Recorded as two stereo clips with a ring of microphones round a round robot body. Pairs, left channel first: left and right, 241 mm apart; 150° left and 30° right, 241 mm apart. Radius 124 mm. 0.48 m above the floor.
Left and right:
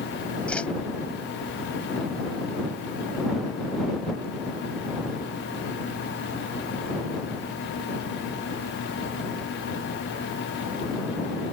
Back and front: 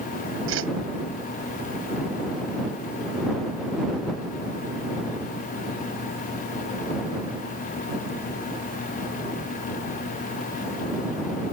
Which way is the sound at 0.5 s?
5° left.